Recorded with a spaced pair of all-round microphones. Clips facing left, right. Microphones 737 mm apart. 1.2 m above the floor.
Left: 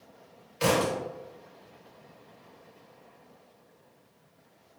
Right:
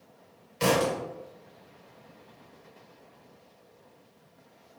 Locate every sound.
0.6 s a thud: 35° right (ahead or behind), 1.6 m